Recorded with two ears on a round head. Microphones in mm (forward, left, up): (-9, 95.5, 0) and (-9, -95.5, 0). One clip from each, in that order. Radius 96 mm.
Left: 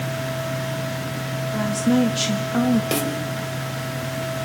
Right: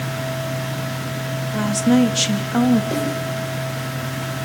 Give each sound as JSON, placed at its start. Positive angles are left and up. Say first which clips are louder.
{"t": 1.5, "sound": "a woman speaking", "louder": "right 3 dB", "side_deg": -20, "distance_m": 1.7}
{"t": 2.9, "sound": "a snare drum", "louder": "right 1 dB", "side_deg": 75, "distance_m": 3.5}